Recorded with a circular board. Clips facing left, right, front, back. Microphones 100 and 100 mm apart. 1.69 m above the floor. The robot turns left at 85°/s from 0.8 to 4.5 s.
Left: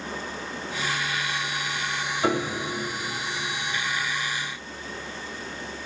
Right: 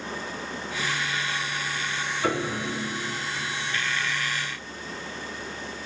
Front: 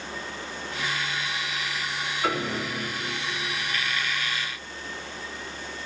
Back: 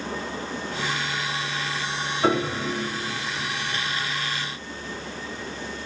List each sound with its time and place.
2.2 s a piano: 140° left, 2.5 m; by 2.7 s 95° left, 2.5 m